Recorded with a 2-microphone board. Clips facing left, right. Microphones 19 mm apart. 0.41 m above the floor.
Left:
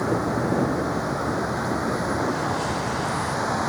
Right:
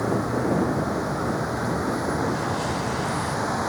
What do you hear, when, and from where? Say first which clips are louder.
0.0 s a vehicle: even; 5° left (ahead or behind)